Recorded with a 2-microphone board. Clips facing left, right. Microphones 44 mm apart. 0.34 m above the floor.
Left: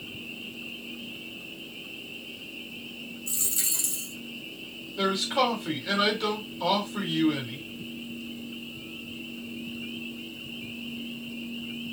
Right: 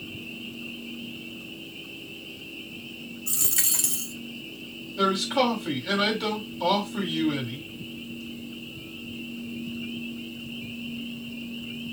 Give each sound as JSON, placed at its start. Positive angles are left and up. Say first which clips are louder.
{"t": 3.3, "sound": "a dropped coin", "louder": "right 5 dB", "side_deg": -75, "distance_m": 0.6}
{"t": 5.0, "sound": "a man speaking", "louder": "right 2 dB", "side_deg": 0, "distance_m": 2.5}